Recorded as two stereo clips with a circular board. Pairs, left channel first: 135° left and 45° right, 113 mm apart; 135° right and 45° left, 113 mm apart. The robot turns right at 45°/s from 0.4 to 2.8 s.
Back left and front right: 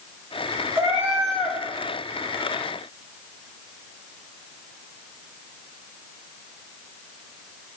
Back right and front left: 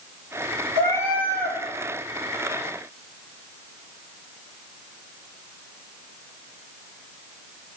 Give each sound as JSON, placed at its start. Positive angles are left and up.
{"t": 0.8, "sound": "a cat meowing", "azimuth_deg": 15, "distance_m": 2.5}